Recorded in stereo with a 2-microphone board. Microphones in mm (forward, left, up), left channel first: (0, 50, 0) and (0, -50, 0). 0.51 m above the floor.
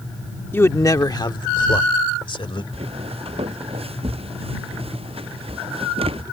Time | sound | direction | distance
0.5 | a man speaking | 20° left (ahead or behind) | ?
2.7 | footsteps | 80° right | ?